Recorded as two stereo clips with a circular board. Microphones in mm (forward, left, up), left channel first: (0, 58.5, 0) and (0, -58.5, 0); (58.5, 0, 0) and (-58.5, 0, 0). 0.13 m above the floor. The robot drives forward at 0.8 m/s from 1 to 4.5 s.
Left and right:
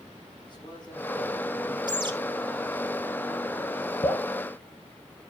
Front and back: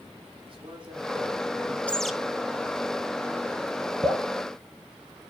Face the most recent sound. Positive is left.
turn(degrees=140)